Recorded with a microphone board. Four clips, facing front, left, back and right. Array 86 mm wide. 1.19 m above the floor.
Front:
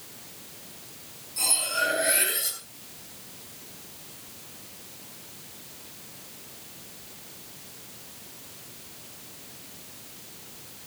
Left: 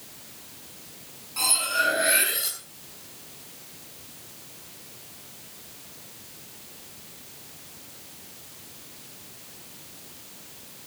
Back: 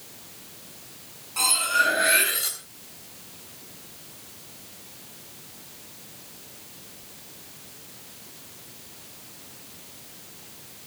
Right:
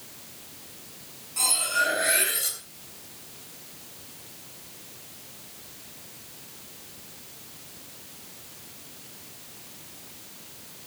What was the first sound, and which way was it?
Cutlery clinking, 165° left.